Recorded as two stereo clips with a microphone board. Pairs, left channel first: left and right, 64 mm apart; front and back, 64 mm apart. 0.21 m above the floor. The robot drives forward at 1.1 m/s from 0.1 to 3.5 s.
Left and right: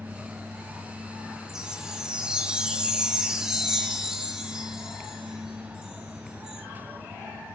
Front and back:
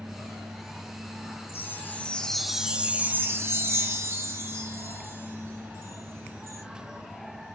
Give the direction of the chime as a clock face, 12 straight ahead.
1 o'clock.